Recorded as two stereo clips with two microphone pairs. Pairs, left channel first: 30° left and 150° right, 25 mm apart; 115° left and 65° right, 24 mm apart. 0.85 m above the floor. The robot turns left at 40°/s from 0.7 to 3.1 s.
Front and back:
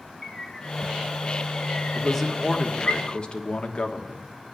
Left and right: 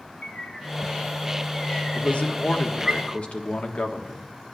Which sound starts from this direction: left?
A bird, at 0.2 s.